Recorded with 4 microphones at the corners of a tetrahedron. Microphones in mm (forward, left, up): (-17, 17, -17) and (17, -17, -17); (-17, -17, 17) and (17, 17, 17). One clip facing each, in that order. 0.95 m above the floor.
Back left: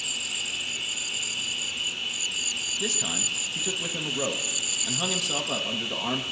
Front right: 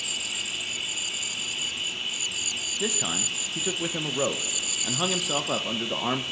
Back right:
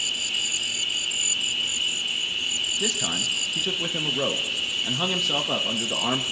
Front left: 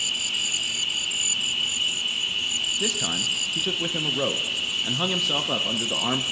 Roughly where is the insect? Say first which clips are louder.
Even, even; ahead.